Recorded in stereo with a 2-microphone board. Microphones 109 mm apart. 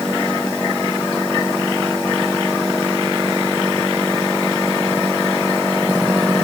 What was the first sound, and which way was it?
Only background noise.